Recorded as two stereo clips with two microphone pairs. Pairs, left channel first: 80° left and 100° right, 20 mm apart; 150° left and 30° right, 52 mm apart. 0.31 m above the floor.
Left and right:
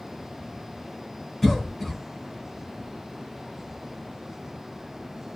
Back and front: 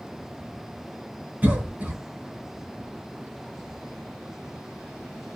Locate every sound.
1.4 s a cough: 10° left, 1.1 m